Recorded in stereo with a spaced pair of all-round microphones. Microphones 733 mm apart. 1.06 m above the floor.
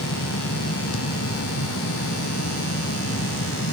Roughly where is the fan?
Centre.